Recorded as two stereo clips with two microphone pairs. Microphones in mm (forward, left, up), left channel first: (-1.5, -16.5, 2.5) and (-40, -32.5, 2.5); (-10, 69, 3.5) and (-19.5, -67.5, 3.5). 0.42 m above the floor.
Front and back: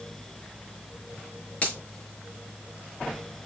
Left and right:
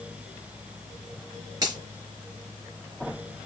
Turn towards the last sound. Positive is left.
turn(degrees=-30)